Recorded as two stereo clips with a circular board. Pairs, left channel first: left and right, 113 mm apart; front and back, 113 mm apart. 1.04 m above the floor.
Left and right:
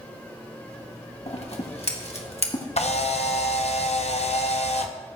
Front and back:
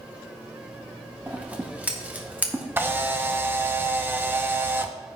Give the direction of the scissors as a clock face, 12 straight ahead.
9 o'clock.